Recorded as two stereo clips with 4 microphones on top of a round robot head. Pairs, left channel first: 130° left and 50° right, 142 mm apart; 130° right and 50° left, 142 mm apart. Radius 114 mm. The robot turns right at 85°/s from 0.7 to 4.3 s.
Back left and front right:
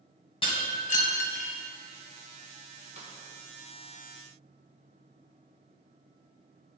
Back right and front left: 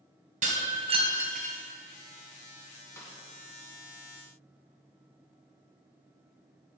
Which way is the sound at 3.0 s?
65° right.